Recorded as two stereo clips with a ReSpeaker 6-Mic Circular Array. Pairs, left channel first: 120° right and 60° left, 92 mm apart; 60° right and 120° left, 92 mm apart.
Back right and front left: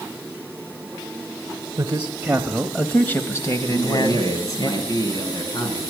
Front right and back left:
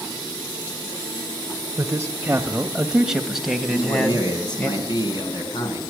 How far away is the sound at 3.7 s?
About 3 m.